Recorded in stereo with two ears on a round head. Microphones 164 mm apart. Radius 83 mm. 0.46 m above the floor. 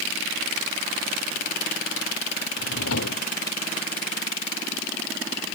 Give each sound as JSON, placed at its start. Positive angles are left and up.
{"t": 2.6, "sound": "a drawer", "side_deg": 80}